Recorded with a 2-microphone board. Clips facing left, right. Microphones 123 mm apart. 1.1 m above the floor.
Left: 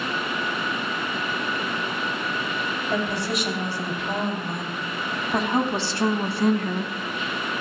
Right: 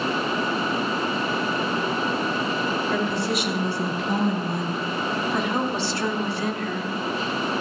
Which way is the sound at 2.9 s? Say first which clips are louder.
Right 2 dB; 80° left.